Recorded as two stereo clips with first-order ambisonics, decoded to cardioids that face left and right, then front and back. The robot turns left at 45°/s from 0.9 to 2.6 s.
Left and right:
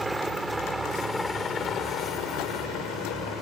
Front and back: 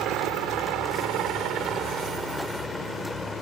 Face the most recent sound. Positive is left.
turn(degrees=90)